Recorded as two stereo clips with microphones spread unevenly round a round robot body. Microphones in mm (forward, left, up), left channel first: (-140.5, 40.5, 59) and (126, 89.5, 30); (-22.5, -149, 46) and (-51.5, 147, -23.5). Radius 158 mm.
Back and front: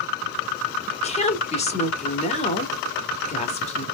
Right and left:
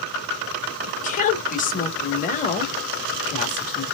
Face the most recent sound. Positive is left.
turn(degrees=-140)